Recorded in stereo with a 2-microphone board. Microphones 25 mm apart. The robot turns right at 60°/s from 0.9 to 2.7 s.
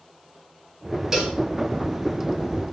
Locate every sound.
1.1 s a cowbell: 25° right (ahead or behind), 1.7 m; by 1.4 s 40° right (ahead or behind), 1.7 m